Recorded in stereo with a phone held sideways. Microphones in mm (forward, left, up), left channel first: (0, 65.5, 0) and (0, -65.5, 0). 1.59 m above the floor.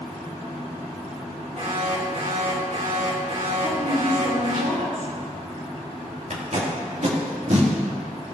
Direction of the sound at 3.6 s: 85° right.